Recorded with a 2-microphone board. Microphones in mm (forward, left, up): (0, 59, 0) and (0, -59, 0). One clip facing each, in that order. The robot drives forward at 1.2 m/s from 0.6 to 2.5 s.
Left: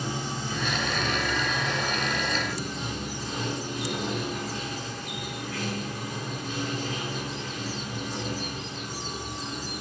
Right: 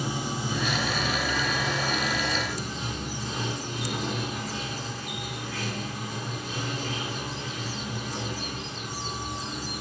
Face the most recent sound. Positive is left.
turn(degrees=-5)  # may be behind; listen again after turning